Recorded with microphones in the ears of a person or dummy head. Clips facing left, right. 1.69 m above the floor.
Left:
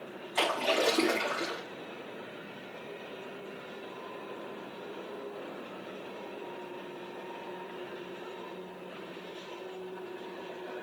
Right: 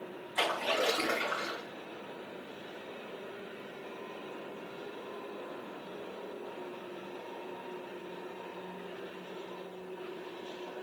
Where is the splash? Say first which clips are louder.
Left 3 dB; 85° left, 4.5 m.